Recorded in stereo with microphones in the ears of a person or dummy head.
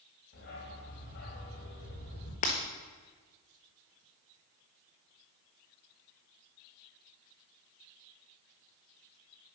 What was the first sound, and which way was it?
A dog barking, 45° left (ahead or behind).